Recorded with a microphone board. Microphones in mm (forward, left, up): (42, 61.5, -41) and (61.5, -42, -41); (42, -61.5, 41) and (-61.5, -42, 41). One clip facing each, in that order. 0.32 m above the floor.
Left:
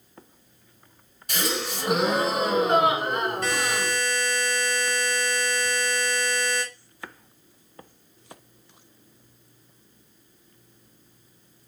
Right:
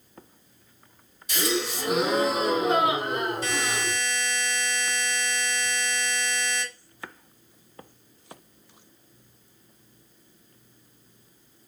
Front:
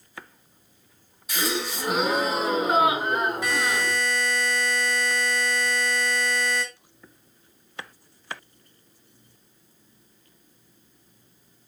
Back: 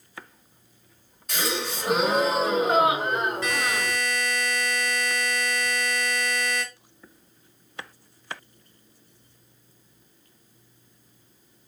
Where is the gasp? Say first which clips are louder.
Right 2 dB, front 1 dB; 70° left, 2.5 m.